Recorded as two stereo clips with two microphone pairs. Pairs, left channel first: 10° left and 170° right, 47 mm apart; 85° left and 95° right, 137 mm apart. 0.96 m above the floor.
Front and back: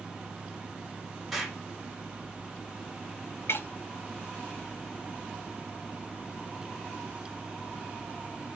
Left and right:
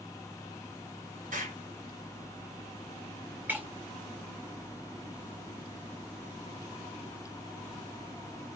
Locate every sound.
1.3 s an explosion: 85° right, 2 m
3.5 s breaking glass: 20° right, 1.1 m